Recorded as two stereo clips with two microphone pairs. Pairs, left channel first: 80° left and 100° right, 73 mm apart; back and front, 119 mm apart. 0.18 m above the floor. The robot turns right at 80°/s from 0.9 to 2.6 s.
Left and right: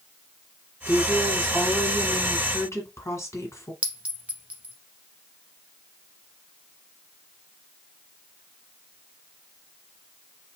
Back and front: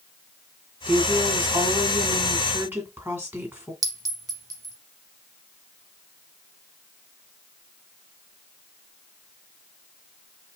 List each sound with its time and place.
0.9 s a woman speaking: 70° right, 2 m; by 3.7 s 65° left, 2 m
3.8 s a clink: 35° right, 0.9 m